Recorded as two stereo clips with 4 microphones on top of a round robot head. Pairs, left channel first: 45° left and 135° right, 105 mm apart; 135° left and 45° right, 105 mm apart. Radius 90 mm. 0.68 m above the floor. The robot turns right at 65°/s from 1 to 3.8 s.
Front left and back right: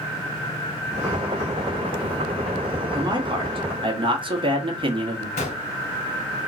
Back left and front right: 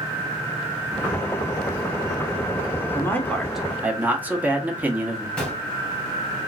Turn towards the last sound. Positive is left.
turn(degrees=55)